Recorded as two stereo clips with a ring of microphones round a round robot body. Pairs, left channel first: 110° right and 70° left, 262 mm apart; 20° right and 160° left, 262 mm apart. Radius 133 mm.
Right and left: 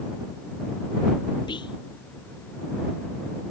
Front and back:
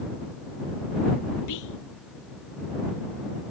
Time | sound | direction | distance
1.5 | whispering | 40° right | ?